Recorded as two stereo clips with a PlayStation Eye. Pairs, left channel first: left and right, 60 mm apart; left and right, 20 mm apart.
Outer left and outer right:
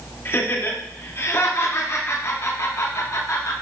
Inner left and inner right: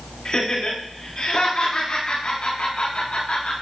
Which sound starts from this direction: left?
Laughter, at 0.2 s.